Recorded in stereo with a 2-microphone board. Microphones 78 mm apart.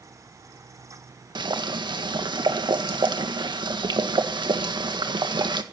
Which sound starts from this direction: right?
Boiling, at 1.4 s.